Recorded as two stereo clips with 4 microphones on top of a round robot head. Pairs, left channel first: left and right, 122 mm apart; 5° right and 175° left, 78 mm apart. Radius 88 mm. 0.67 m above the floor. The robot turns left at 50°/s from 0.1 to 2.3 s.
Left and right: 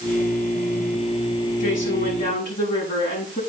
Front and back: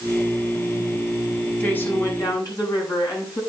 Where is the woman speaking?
70° left, 7 m; by 3.4 s 35° left, 7 m.